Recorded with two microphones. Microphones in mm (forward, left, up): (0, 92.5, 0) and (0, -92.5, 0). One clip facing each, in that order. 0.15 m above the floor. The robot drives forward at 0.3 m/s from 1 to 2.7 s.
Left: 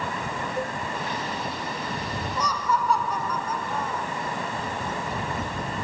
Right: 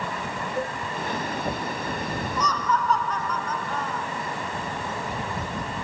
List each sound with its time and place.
0.6 s a cowbell: 5° right (ahead or behind)
2.4 s laughter: 10° left (ahead or behind)